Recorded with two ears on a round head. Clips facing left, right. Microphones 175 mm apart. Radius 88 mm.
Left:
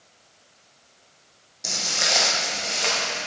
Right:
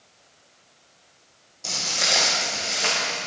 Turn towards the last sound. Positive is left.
turn(degrees=-10)  # may be behind; listen again after turning